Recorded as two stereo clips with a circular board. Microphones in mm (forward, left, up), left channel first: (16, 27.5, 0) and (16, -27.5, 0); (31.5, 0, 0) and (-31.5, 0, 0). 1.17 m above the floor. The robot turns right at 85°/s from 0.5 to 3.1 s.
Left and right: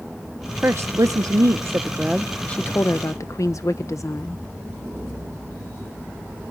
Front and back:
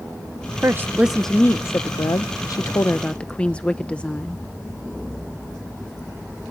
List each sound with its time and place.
0.6 s a woman speaking: 140° right, 0.5 m; by 4.4 s 70° left, 0.5 m